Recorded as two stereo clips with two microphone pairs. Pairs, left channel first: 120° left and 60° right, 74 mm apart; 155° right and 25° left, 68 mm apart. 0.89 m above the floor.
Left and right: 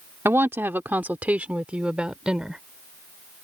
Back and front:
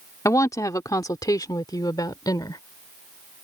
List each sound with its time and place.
0.2 s a woman speaking: 115° right; by 2.6 s 145° right